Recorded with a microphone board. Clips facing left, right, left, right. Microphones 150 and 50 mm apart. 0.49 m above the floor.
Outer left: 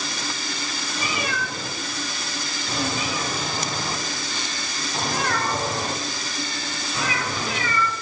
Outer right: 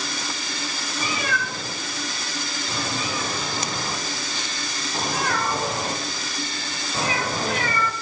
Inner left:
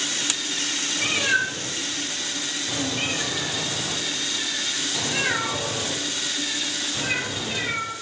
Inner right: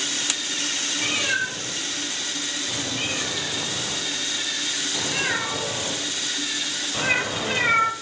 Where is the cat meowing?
15° left (ahead or behind), 4.5 m; by 7.9 s 60° right (ahead or behind), 1.0 m.